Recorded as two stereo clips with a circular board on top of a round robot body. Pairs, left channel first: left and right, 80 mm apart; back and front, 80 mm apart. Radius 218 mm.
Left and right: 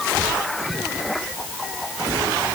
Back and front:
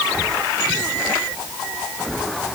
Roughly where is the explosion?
No explosion in this recording.